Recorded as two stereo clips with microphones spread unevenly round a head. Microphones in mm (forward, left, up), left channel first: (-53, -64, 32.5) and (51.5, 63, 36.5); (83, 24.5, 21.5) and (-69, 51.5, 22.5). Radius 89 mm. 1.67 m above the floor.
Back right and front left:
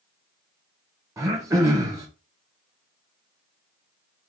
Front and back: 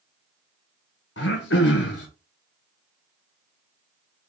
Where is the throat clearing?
20° right, 1.2 m.